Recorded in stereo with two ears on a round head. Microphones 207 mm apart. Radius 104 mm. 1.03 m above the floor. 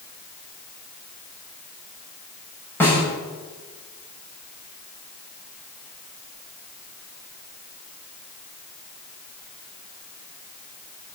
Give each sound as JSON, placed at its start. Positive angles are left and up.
{"t": 2.8, "sound": "a snare drum", "side_deg": 10, "distance_m": 7.0}